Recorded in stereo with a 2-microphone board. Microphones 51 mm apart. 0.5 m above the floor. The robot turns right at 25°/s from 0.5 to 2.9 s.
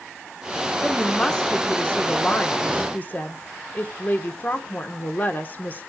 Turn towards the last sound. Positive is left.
turn(degrees=60)